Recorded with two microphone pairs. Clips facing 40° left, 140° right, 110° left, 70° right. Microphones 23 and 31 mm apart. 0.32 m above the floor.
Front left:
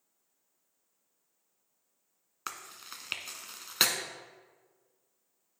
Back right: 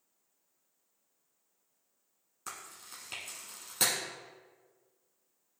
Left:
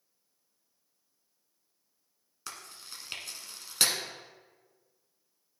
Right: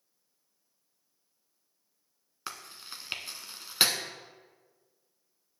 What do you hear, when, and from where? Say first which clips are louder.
2.5 s chewing: front left 4 dB, right 3 dB; straight ahead, 0.8 m